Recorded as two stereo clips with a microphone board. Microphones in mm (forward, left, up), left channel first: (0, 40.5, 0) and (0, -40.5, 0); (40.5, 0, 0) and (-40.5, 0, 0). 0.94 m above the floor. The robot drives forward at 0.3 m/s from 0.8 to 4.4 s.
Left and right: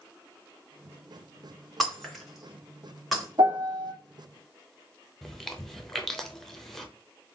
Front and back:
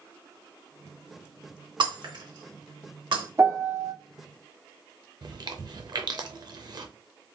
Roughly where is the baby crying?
No baby crying in this recording.